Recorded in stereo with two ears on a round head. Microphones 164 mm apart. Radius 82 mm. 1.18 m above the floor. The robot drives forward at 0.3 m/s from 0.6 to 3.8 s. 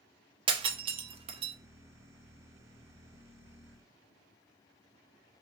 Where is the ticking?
I don't hear ticking.